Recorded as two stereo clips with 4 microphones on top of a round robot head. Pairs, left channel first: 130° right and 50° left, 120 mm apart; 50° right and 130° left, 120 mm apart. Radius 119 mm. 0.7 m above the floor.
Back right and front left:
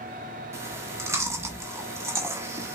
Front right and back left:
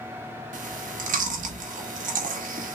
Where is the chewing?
120° left, 0.8 m.